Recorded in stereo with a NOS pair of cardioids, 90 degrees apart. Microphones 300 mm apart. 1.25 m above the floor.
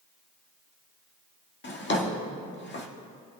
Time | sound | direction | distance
1.6 | a drawer | 35° left | 1.8 m